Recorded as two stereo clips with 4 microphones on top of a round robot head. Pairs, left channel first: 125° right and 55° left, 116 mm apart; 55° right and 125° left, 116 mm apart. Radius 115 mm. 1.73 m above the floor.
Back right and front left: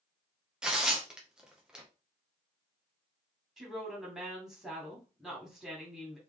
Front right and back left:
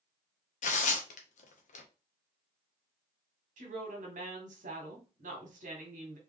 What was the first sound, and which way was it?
Tearing paper, 30° right.